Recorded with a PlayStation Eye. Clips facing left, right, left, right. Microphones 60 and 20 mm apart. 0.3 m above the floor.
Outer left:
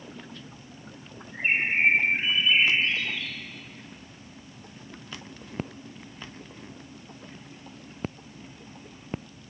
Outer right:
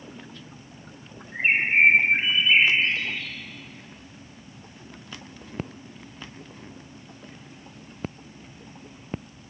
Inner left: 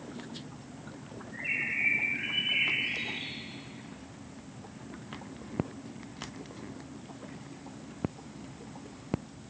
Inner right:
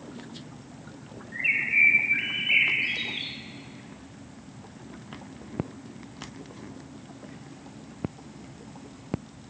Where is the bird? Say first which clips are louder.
Outer right 4 dB, inner right 9 dB; 50° right (ahead or behind), 0.7 m.